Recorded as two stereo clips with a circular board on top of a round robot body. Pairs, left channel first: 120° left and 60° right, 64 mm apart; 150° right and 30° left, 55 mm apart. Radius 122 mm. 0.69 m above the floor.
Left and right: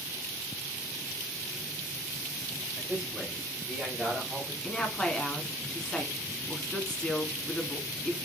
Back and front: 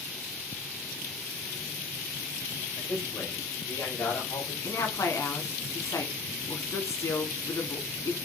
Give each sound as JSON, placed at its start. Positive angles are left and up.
{"t": 2.8, "sound": "a man speaking", "azimuth_deg": -130, "distance_m": 5.5}
{"t": 4.6, "sound": "a woman speaking", "azimuth_deg": -160, "distance_m": 2.5}